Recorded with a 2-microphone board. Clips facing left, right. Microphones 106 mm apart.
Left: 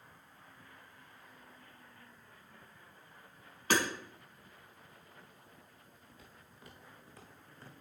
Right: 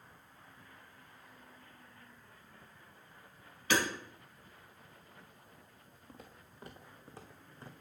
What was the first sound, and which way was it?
Hammering, 45° left (ahead or behind).